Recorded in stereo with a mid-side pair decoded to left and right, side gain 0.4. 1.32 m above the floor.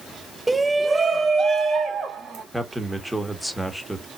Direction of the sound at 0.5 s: 20° right.